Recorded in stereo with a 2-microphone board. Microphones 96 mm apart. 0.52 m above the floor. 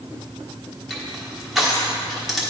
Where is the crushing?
Centre (ahead or behind), 1.2 m.